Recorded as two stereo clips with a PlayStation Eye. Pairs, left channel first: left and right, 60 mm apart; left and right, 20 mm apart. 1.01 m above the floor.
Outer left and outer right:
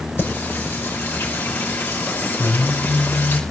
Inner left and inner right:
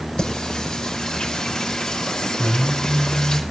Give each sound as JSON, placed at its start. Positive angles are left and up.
{"t": 0.2, "sound": "singing", "side_deg": 40, "distance_m": 5.0}